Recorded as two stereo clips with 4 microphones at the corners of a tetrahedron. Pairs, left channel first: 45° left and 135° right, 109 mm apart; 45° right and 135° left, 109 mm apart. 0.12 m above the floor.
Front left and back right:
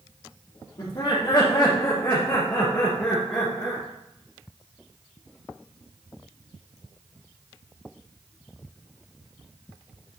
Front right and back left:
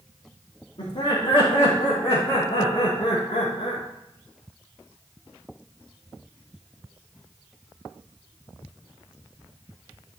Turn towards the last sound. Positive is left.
turn(degrees=-45)